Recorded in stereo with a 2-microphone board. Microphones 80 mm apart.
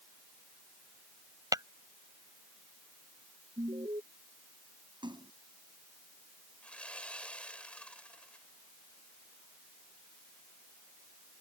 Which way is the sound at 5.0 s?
75° right (ahead or behind).